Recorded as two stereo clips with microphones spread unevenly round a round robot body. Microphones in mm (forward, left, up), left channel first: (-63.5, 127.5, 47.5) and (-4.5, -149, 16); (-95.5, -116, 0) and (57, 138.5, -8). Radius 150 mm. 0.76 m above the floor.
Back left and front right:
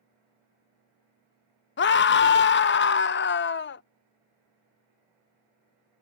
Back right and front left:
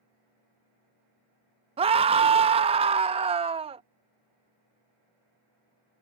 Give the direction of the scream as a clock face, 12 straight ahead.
8 o'clock.